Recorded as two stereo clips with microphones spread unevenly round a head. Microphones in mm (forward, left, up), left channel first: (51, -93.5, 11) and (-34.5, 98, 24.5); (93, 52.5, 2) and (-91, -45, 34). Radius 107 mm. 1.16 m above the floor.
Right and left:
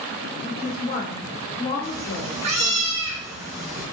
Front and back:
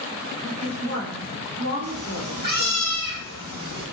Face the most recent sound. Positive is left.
turn(degrees=175)